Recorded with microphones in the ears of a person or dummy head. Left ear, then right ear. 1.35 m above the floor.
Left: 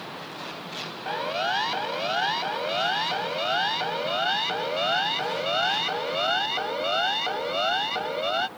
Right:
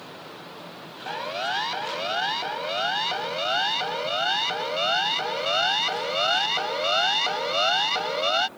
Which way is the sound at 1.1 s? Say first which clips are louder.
Left 1 dB; 5° right (ahead or behind).